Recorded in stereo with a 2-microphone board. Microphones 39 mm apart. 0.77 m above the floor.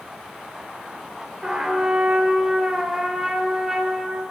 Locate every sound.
1.4 s a trumpet: 20° right (ahead or behind), 3 m